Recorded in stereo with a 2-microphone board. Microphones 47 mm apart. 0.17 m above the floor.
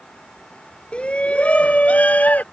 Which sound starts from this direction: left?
A shout, at 0.9 s.